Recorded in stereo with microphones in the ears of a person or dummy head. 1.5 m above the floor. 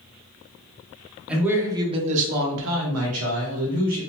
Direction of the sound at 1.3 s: 5° right (ahead or behind).